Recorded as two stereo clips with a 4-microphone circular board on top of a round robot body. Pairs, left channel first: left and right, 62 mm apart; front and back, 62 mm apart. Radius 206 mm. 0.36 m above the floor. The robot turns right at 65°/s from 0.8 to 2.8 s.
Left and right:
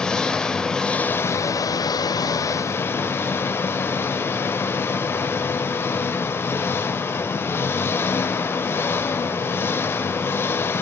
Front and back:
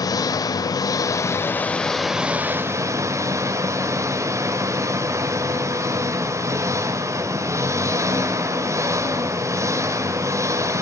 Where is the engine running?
10° left, 1.5 m; by 10.8 s 140° left, 1.5 m.